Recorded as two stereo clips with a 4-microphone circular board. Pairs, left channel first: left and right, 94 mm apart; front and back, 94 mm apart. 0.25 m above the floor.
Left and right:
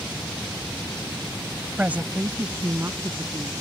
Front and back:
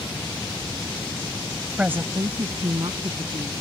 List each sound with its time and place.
1.8 s a woman speaking: 130° right; by 3.5 s 155° right